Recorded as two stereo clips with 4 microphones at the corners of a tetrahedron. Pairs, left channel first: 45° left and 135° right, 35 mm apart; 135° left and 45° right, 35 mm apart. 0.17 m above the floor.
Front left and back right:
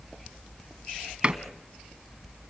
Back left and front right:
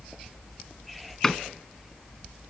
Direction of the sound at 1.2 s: 155° right.